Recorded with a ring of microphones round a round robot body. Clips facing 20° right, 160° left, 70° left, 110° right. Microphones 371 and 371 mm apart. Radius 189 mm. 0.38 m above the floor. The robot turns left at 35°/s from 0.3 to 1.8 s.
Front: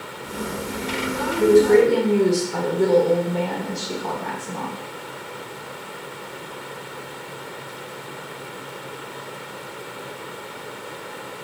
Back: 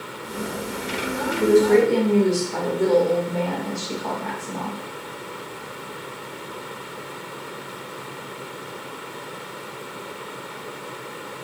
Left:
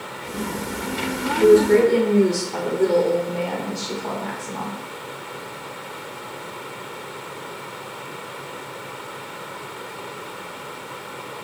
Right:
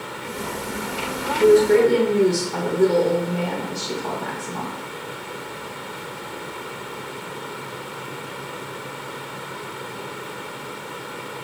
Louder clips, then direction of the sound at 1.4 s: Front 2 dB, left 1 dB; 55° right.